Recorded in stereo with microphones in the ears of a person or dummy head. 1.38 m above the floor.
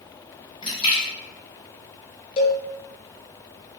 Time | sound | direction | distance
0.6 | a splash | 35° left (ahead or behind) | 2 m
2.4 | a cowbell | 40° left (ahead or behind) | 1.4 m